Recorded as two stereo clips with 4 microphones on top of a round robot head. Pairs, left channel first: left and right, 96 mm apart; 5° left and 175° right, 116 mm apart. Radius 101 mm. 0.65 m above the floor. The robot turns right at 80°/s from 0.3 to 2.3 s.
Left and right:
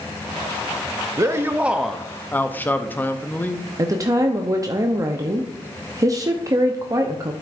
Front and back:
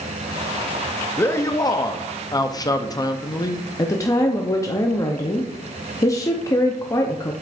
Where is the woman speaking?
50° right, 0.8 m.